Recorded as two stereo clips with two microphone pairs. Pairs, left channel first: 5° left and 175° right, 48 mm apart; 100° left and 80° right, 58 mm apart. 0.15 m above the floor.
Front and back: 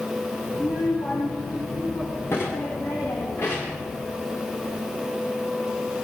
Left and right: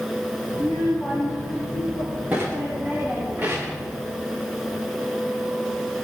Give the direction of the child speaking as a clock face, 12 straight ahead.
1 o'clock.